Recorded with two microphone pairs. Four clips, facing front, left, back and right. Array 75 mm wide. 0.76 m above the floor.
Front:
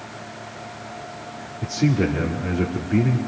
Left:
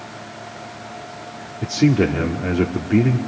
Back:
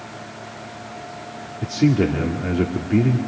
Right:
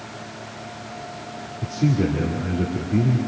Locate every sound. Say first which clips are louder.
1.6 s a man speaking: left 5 dB, back 3 dB; 115° left, 1.8 m